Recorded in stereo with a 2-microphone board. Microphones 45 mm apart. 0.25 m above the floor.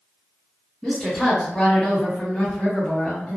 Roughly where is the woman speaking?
Centre.